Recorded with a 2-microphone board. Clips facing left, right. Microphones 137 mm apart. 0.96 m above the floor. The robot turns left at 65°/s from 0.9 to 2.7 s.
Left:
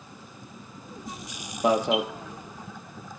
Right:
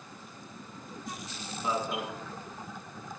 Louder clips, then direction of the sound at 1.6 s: Left 10 dB; 70° left (ahead or behind).